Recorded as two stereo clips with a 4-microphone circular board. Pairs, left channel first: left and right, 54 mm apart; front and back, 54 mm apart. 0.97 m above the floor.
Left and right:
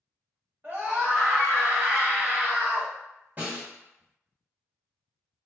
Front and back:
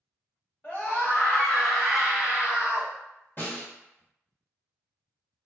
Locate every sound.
0.6 s a scream: 60° right, 1.3 m; by 2.9 s 130° right, 1.2 m
3.4 s a snare drum: 35° right, 1.3 m